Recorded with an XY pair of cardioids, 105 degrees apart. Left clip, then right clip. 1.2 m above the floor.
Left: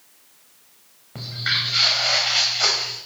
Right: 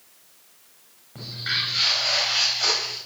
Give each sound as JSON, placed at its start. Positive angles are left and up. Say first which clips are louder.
{"t": 1.1, "sound": "footsteps", "louder": "left 3 dB", "azimuth_deg": 50, "distance_m": 5.0}